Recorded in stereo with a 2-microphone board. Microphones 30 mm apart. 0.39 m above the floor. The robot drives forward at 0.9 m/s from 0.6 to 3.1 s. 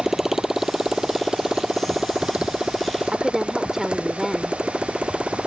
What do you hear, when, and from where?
0.0 s a motorcycle: 10° right (ahead or behind); by 5.5 s 35° right (ahead or behind)
3.1 s a woman speaking: 15° right (ahead or behind)